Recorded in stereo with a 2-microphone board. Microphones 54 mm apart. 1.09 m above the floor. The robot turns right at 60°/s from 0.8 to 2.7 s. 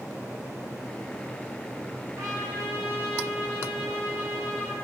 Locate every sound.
2.2 s a trumpet: 75° right, 1.3 m; by 4.8 s 40° right, 1.3 m